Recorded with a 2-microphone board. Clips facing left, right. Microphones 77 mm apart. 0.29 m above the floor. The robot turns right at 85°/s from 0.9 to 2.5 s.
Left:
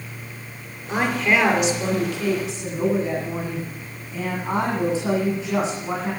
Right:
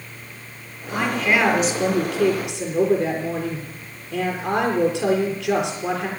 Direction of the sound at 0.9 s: 155° left.